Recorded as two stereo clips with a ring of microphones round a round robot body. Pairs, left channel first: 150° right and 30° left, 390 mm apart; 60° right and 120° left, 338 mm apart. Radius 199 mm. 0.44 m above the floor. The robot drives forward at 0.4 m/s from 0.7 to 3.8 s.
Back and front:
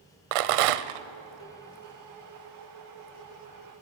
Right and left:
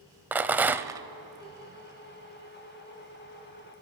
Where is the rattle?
35° left, 0.8 m; by 1.1 s 40° left, 0.7 m.